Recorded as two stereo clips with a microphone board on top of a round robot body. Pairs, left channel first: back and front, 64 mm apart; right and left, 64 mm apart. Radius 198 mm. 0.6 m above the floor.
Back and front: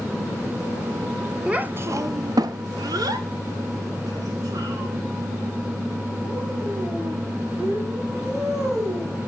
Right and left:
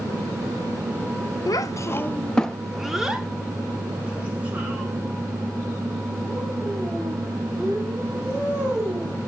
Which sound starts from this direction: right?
A child speaking, at 1.5 s.